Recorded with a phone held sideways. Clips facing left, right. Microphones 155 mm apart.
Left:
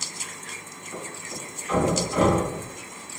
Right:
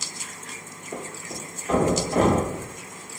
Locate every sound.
0.9 s a thud: 50° right (ahead or behind), 1.0 m